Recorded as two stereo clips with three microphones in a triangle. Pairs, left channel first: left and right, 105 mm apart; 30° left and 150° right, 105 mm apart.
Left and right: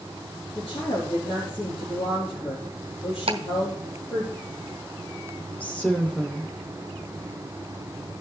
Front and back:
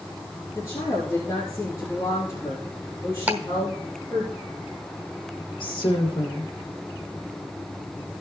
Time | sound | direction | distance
0.6 | a woman speaking | 85° left | 3.5 m
3.3 | ticking | 75° right | 1.1 m
5.6 | a woman speaking | 15° left | 2.5 m